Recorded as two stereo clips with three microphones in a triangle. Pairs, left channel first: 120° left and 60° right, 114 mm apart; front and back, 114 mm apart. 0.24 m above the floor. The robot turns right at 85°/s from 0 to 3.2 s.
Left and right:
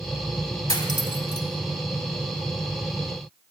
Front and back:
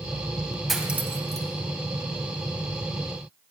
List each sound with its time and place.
0.7 s cutlery clinking: 90° left, 0.9 m; by 1.5 s 155° left, 0.9 m